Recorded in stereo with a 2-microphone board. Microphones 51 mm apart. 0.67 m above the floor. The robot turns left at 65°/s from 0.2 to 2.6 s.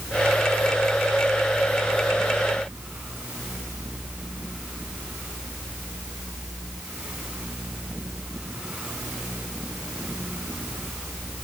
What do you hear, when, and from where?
Only background noise.